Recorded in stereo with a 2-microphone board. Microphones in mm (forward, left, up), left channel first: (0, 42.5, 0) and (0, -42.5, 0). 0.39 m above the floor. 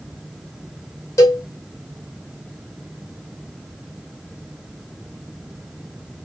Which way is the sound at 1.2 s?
35° left (ahead or behind).